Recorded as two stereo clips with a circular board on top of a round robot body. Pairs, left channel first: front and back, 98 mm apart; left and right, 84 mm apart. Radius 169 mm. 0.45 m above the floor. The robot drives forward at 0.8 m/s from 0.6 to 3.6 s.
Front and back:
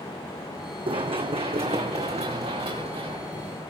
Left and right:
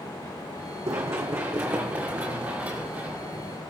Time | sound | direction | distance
0.9 | running footsteps | 145° right | 1.7 m